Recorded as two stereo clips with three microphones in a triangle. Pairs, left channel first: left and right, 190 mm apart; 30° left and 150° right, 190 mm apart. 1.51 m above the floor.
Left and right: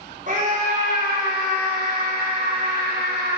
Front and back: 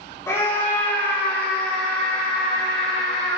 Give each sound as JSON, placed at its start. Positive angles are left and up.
{"t": 0.3, "sound": "a scream", "azimuth_deg": -45, "distance_m": 4.5}